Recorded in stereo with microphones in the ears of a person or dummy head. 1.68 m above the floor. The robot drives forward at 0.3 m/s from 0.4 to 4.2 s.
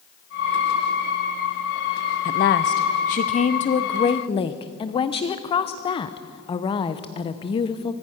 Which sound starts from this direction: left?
A woman speaking, at 2.2 s.